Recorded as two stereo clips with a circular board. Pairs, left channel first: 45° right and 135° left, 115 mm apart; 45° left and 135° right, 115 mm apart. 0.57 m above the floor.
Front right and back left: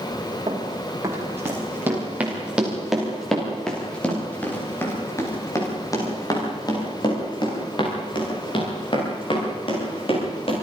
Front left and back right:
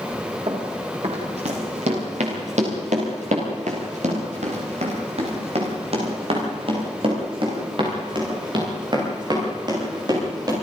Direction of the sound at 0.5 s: 165° right.